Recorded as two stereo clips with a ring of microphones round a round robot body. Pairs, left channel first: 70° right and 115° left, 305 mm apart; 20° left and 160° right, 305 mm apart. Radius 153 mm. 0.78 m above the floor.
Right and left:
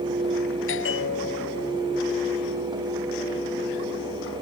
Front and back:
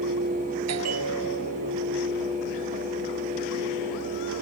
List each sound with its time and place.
0.7 s a bell: 120° right